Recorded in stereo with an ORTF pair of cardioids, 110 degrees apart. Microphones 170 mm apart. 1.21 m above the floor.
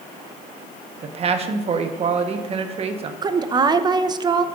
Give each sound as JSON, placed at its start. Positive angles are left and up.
{"t": 1.0, "sound": "a man speaking", "azimuth_deg": -40, "distance_m": 1.0}
{"t": 3.2, "sound": "a woman speaking", "azimuth_deg": -25, "distance_m": 0.6}